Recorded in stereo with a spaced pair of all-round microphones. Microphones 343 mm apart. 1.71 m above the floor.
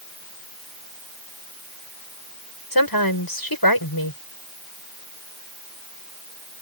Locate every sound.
2.7 s a woman speaking: 90° left